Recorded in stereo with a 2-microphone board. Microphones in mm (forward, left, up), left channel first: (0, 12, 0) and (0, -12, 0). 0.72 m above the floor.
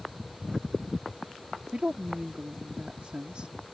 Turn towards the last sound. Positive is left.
turn(degrees=-55)  # may be behind; listen again after turning